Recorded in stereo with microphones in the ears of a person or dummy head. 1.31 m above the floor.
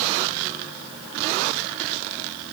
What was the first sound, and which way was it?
Only background noise.